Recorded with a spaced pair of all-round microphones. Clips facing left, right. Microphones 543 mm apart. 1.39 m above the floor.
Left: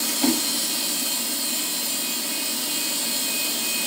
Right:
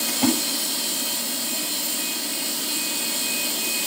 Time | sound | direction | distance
0.1 | a splash | 85° right | 6.5 m